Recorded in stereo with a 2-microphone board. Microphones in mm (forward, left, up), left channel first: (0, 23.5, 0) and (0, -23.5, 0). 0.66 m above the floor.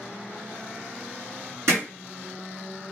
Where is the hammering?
65° right (ahead or behind), 3 m.